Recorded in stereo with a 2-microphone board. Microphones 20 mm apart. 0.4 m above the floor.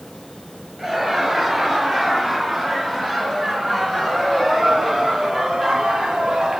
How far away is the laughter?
About 6.5 m.